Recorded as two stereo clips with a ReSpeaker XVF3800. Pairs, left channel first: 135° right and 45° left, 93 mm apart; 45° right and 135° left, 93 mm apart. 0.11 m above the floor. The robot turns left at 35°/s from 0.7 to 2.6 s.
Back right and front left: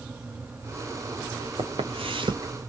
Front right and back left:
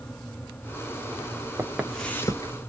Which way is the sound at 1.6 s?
70° left.